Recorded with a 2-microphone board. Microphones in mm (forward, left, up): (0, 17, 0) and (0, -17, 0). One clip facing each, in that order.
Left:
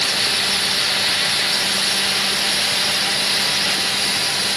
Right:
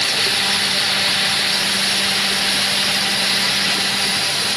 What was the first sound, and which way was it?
Only background noise.